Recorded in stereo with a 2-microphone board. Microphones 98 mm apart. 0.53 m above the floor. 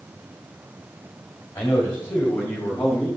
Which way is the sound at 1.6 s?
20° left (ahead or behind).